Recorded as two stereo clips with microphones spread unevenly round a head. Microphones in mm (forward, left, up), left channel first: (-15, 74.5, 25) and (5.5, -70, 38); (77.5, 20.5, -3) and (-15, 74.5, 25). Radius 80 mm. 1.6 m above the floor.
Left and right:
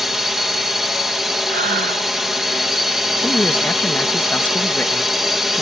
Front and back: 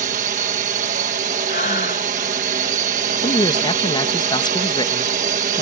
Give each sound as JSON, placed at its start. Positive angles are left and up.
{"t": 0.0, "sound": "a drone", "azimuth_deg": -170}
{"t": 1.5, "sound": "breathing", "azimuth_deg": -60}
{"t": 3.2, "sound": "a man speaking", "azimuth_deg": 15}